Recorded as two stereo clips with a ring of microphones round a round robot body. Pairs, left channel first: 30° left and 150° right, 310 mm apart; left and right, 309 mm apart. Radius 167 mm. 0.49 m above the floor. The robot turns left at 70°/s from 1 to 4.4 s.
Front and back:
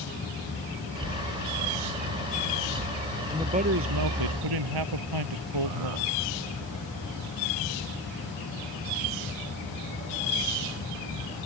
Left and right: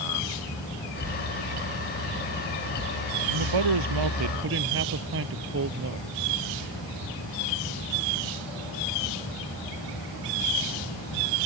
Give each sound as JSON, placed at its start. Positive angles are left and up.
{"t": 3.3, "sound": "a man speaking", "azimuth_deg": -65}